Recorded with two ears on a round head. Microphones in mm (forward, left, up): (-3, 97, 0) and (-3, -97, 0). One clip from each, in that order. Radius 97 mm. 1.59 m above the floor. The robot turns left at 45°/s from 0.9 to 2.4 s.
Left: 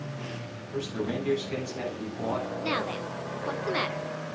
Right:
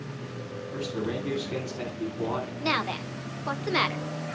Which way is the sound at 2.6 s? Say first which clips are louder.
Right 2 dB; 15° right (ahead or behind).